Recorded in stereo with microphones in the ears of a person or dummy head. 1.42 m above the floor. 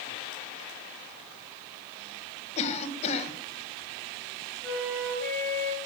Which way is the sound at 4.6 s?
5° left (ahead or behind).